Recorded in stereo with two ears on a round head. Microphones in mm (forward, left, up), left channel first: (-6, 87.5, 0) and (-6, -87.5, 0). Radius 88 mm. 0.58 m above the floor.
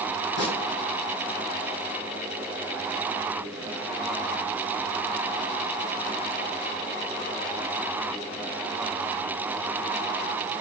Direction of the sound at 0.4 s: 60° left (ahead or behind).